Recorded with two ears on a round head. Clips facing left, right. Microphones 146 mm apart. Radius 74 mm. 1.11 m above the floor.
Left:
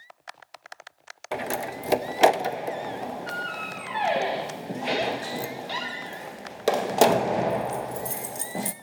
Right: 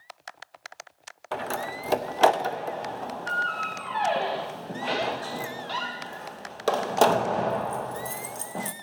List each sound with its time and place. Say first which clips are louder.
1.3 s a door slam: left 1 dB; 15° left (ahead or behind), 0.5 m